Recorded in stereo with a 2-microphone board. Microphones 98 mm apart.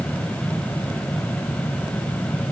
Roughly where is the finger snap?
I don't hear a finger snap.